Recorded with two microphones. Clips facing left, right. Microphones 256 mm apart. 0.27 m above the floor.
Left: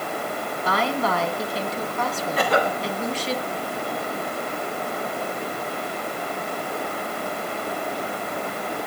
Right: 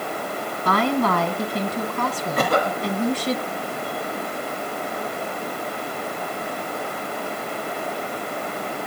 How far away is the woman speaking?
About 2 m.